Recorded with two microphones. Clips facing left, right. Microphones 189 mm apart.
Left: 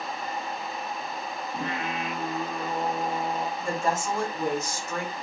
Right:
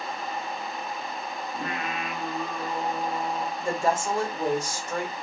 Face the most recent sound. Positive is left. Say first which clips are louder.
# right 4 dB
turn(degrees=-30)  # may be behind; listen again after turning